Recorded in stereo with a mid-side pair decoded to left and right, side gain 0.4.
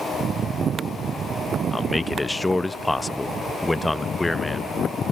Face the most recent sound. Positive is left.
turn(degrees=20)